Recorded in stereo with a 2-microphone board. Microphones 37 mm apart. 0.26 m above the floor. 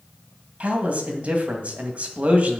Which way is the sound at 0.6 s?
35° right (ahead or behind).